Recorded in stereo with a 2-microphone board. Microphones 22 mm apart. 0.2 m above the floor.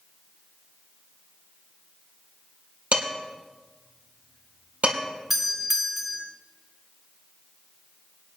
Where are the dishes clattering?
70° right (ahead or behind), 3.5 m.